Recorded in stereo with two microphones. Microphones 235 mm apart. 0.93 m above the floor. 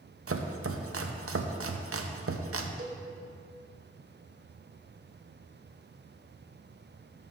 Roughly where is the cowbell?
Right.